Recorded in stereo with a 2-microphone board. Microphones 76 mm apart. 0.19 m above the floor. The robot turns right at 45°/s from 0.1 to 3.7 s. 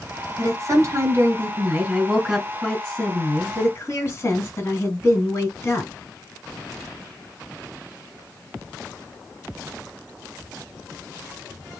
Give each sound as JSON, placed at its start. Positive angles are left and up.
{"t": 0.4, "sound": "a woman speaking", "azimuth_deg": -95, "distance_m": 1.9}